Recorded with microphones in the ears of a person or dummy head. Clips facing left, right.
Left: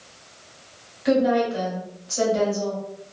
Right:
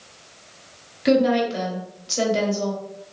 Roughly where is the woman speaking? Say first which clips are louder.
Right 1 dB; right.